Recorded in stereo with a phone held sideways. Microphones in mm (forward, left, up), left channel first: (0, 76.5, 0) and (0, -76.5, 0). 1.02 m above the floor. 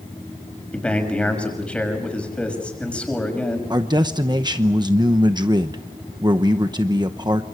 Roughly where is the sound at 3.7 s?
Right.